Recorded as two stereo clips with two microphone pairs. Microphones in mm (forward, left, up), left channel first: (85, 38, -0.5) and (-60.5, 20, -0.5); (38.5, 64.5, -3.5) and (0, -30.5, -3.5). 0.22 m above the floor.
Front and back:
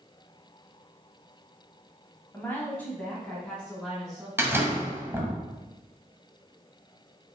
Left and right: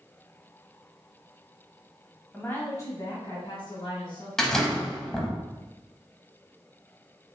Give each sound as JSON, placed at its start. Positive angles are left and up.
{"t": 2.3, "sound": "a woman speaking", "azimuth_deg": 30, "distance_m": 0.9}
{"t": 4.4, "sound": "a door slam", "azimuth_deg": 140, "distance_m": 0.8}